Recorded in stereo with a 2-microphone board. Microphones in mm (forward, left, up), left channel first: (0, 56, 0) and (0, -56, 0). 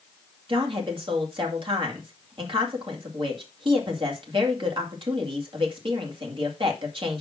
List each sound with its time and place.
0.5 s a woman speaking: 50° right (ahead or behind), 2 m